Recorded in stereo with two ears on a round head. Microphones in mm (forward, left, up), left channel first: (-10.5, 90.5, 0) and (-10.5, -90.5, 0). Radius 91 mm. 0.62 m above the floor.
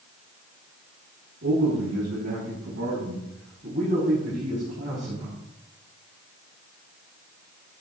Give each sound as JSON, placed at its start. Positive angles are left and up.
{"t": 1.4, "sound": "a man speaking", "side_deg": -60, "distance_m": 6.0}